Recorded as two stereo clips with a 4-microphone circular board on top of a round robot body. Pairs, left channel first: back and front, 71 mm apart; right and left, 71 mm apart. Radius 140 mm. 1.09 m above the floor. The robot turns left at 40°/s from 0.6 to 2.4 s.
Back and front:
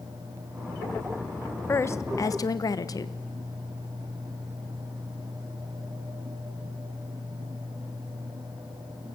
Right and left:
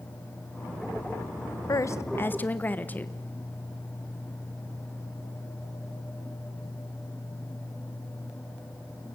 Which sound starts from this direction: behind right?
A woman speaking, at 1.7 s.